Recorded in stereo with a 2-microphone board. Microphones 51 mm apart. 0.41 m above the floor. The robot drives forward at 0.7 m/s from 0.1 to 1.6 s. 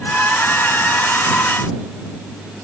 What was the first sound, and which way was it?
Only background noise.